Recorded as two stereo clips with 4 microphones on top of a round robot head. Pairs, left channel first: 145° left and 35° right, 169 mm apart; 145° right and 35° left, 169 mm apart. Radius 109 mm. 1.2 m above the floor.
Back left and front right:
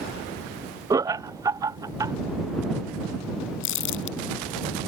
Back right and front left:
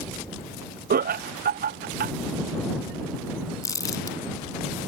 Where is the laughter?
30° left.